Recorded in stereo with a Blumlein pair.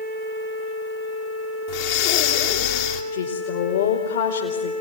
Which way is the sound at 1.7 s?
50° left.